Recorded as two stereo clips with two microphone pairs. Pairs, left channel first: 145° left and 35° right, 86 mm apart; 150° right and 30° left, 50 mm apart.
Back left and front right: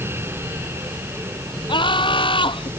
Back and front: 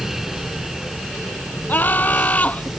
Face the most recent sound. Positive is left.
turn(degrees=150)